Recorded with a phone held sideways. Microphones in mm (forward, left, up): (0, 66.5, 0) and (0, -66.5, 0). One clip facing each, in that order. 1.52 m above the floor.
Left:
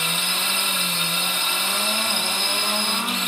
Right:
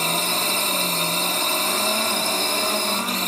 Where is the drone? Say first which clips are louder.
Right 5 dB; 35° right (ahead or behind).